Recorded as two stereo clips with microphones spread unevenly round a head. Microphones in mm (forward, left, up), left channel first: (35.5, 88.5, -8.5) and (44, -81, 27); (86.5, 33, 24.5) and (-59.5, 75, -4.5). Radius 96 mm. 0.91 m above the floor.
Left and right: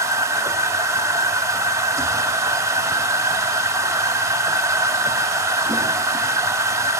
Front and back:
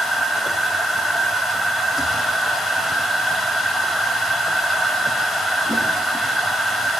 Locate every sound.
0.0 s a machine running: 80° right, 0.7 m